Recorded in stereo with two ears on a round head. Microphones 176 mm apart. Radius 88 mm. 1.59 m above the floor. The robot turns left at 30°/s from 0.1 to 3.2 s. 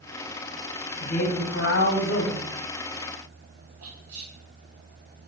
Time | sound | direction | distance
1.0 | a man speaking | 145° left | 1.3 m
3.8 | whispering | 80° right | 2.5 m